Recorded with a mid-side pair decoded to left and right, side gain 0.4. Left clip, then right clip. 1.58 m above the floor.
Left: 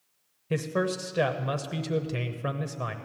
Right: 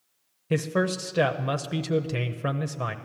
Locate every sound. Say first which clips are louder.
0.5 s a man speaking: right 2 dB; 30° right, 0.8 m